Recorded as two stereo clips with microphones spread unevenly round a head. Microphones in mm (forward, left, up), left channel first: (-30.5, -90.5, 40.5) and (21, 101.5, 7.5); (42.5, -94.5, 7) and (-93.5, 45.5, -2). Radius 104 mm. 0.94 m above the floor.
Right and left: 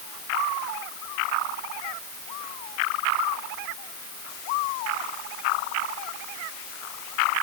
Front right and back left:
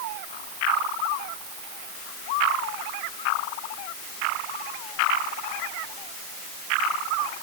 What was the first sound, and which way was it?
Only background noise.